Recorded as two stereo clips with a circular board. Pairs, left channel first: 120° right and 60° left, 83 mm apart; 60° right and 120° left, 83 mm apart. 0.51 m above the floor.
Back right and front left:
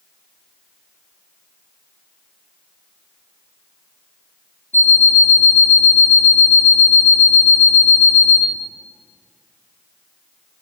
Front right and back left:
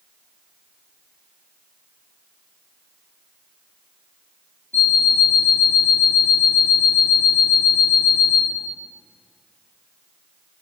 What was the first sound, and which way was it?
An alarm clock, 100° right.